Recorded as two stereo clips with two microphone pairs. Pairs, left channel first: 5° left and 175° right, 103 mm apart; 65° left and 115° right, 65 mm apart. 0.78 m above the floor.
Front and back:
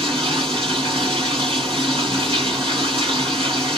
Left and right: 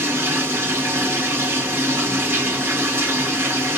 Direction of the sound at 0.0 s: 165° right.